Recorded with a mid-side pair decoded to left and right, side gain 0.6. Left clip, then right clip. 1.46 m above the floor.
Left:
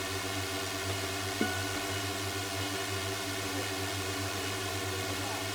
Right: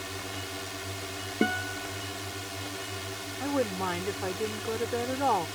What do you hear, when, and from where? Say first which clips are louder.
0.0 s a drone: left 2 dB; 15° left
1.4 s a guitar: right 6 dB; 35° right
3.4 s a woman speaking: right 5 dB; 70° right